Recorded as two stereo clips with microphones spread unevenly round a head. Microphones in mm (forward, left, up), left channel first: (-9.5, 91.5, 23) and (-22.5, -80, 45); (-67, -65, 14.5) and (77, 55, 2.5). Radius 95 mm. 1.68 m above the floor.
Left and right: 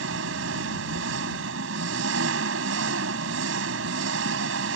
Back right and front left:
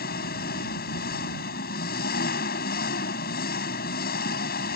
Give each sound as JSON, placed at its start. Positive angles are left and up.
{"t": 0.0, "sound": "an engine running", "azimuth_deg": -100}